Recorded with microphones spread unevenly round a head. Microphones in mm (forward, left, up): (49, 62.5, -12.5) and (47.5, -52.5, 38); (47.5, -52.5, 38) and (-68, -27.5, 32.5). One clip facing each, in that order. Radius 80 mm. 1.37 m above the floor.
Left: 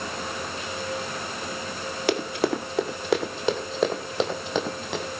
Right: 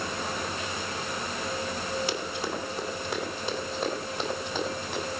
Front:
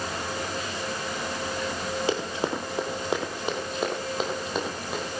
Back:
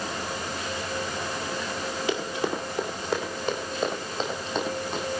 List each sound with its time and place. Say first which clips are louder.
2.1 s running footsteps: left 7 dB, back 1 dB; 55° left, 2.5 m; by 5.0 s 75° left, 4 m